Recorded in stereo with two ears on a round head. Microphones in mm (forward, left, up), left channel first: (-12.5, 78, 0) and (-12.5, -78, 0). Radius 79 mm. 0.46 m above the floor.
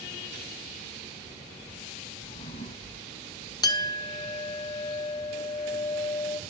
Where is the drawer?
35° left (ahead or behind), 1.1 m.